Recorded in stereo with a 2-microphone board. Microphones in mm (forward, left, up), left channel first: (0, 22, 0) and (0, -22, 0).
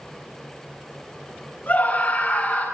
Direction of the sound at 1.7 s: 40° left (ahead or behind).